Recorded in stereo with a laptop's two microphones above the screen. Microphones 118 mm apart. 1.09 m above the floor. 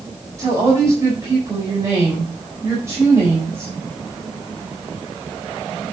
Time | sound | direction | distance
0.4 | a woman speaking | 25° right (ahead or behind) | 4 m